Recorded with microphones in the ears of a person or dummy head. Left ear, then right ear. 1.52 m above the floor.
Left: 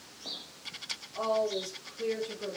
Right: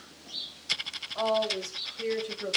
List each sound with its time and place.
1.1 s a woman speaking: 80° right, 1.7 m; by 2.6 s 70° right (ahead or behind), 1.5 m